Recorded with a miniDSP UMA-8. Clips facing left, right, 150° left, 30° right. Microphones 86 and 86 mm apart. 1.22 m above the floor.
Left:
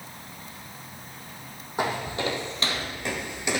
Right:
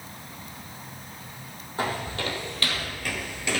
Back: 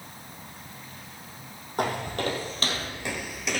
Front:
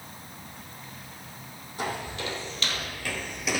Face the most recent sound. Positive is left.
turn(degrees=45)